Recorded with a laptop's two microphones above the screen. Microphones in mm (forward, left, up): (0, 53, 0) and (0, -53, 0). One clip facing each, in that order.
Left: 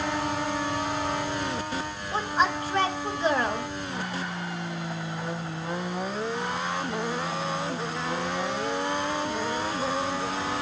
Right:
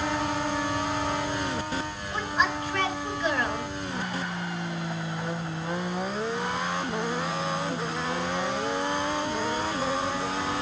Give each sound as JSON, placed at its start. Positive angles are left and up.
{"t": 2.1, "sound": "a woman speaking", "side_deg": 30, "distance_m": 1.5}